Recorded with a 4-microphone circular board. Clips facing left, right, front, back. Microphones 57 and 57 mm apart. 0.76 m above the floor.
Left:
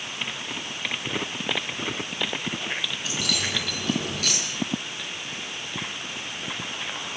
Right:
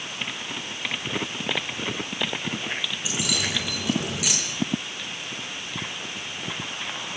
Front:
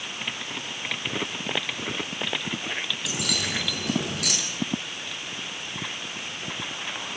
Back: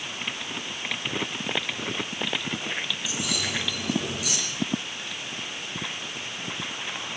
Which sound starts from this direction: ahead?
Keys jangling, at 3.0 s.